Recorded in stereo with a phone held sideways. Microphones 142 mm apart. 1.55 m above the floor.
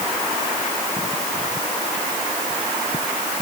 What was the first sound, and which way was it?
Only background noise.